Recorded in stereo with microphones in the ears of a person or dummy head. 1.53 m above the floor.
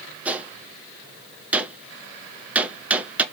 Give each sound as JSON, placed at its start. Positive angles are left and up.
{"t": 0.2, "sound": "a gunshot", "side_deg": -5, "distance_m": 1.5}